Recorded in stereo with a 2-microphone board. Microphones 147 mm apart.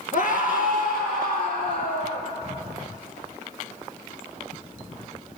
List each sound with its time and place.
0.1 s a scream: 65° left (ahead or behind), 4 m; by 2.2 s 75° left (ahead or behind), 7 m